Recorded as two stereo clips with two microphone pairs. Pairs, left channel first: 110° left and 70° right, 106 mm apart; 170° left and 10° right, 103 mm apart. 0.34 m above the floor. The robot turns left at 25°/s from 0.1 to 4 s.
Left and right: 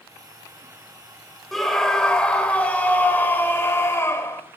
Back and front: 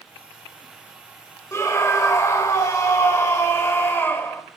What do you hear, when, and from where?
1.5 s a scream: 165° right, 1.0 m; by 4.4 s 130° left, 1.0 m